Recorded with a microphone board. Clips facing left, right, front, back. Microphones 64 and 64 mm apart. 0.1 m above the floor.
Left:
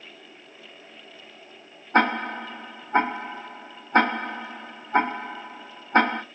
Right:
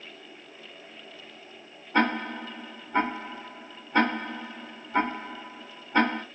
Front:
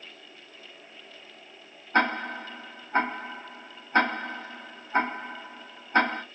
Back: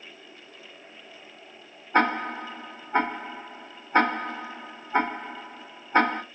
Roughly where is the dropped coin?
No dropped coin in this recording.